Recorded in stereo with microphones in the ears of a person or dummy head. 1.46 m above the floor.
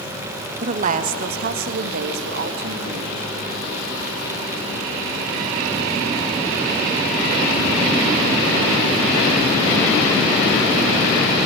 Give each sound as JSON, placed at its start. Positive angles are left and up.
{"t": 0.6, "sound": "a woman speaking", "side_deg": -40, "distance_m": 1.4}